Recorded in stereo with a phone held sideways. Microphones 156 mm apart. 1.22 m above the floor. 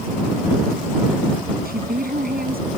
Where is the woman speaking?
90° right.